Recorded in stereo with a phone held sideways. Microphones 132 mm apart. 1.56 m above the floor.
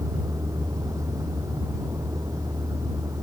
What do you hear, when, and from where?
0.0 s a vehicle: 25° right (ahead or behind)